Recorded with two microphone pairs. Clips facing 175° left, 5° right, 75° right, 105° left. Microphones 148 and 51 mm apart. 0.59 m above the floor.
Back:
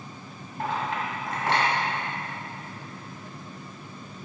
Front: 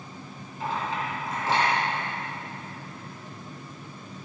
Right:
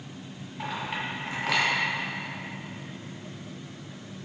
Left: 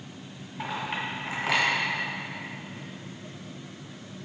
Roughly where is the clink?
Behind.